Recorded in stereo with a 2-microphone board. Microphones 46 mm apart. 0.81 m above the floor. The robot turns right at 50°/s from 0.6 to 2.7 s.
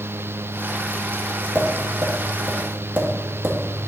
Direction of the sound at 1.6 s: 25° right (ahead or behind).